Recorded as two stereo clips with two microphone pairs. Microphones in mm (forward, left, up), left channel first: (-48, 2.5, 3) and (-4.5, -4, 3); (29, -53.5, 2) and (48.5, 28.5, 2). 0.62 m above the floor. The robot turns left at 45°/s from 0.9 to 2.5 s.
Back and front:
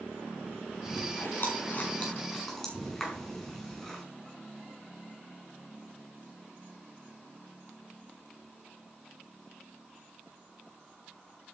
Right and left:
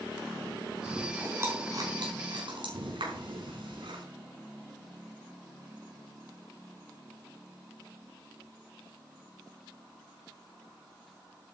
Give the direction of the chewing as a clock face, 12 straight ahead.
7 o'clock.